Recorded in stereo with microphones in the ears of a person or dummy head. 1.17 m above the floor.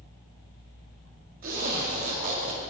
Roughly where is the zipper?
Right.